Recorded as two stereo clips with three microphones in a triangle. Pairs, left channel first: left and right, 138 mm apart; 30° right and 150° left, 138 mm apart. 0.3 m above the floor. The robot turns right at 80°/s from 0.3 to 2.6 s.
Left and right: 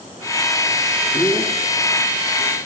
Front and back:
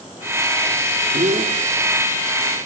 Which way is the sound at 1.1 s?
140° left.